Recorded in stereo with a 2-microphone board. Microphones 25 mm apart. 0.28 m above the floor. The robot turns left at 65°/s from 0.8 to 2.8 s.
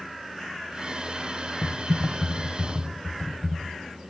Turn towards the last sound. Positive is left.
turn(degrees=75)